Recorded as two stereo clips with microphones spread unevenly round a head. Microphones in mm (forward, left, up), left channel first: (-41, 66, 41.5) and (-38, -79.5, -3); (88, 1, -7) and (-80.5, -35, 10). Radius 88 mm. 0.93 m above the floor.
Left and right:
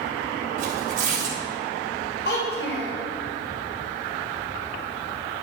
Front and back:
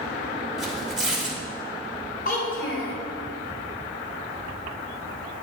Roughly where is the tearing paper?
Right.